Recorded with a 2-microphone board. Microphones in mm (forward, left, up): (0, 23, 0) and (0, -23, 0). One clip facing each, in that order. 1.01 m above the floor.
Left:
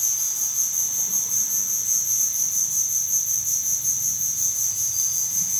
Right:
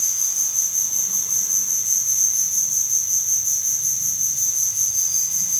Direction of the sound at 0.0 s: 70° right (ahead or behind).